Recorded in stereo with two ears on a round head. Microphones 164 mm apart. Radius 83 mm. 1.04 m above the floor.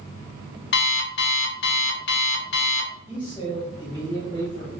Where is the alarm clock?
60° left (ahead or behind), 0.7 m.